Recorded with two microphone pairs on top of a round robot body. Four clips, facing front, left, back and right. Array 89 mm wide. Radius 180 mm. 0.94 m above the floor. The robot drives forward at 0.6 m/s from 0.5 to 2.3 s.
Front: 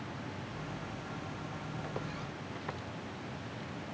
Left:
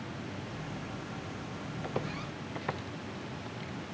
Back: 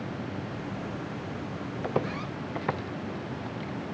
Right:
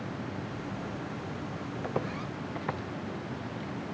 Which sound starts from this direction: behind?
Footsteps, at 1.8 s.